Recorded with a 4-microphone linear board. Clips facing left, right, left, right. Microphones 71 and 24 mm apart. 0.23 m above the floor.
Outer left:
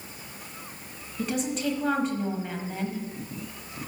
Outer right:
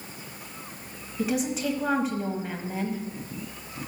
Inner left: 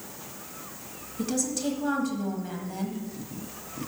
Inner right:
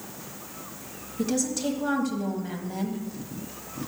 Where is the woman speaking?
5° right (ahead or behind), 1.2 m.